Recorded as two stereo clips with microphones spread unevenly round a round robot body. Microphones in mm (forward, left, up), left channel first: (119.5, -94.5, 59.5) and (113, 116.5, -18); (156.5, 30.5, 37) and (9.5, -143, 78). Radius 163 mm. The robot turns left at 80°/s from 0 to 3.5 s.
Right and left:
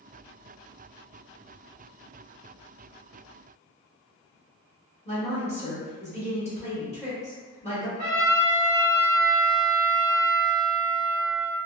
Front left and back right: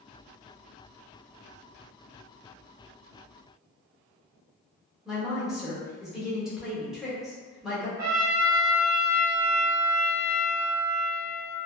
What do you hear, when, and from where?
5.0 s a woman speaking: 20° right, 1.1 m
8.0 s a trumpet: 120° right, 1.0 m